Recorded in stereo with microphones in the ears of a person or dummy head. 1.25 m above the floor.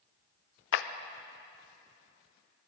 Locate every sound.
0.7 s a clap: 70° left (ahead or behind), 0.6 m